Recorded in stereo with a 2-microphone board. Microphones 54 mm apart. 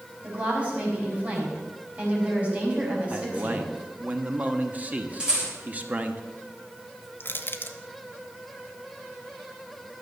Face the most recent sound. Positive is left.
turn(degrees=40)  # may be behind; listen again after turning